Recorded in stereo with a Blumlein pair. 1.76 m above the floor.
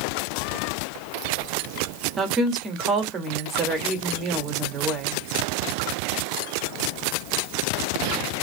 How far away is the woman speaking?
About 1.0 m.